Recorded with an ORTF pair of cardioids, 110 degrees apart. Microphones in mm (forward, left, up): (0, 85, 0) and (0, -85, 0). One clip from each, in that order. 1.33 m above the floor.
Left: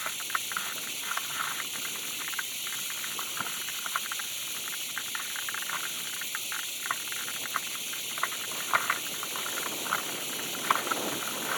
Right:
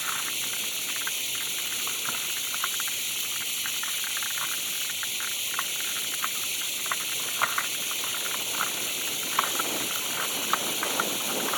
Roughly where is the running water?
Ahead right.